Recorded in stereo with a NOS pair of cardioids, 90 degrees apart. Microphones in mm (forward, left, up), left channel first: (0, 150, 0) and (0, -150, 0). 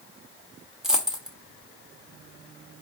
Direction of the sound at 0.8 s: Straight ahead.